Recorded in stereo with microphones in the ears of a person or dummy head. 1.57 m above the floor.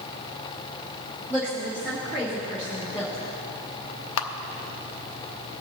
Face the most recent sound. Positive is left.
turn(degrees=70)  # may be behind; listen again after turning